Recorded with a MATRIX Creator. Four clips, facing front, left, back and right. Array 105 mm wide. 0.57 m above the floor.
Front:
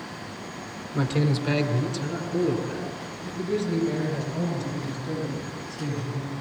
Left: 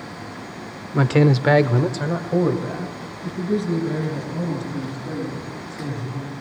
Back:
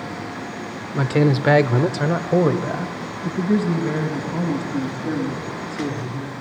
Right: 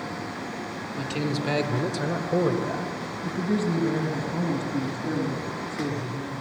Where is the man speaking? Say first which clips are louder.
Left 12 dB, back 7 dB; 105° left, 1.3 m; by 6.3 s 155° right, 7 m.